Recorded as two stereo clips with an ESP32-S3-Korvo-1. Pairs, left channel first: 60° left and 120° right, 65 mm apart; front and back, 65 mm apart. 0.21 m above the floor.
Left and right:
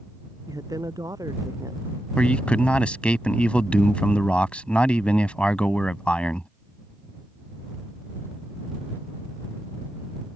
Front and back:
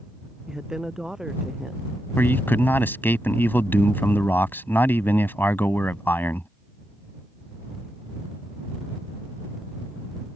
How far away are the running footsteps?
I don't hear running footsteps.